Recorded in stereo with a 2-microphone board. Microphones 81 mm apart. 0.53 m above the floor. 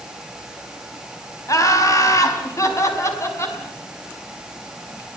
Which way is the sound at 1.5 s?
40° left (ahead or behind).